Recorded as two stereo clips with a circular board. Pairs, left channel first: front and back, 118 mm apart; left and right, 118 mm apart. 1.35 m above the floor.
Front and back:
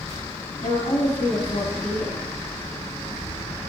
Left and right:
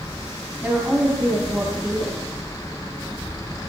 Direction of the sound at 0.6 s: 5° right.